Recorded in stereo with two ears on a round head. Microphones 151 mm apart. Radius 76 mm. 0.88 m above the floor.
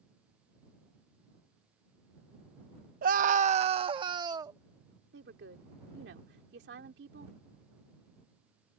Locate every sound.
3.0 s a scream: 55° right (ahead or behind); by 4.6 s 20° right (ahead or behind)
5.1 s a woman speaking: 75° right (ahead or behind)